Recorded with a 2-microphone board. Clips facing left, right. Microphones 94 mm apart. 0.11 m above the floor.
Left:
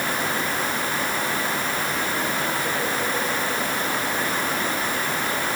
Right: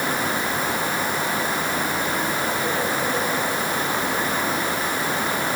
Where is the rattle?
No rattle in this recording.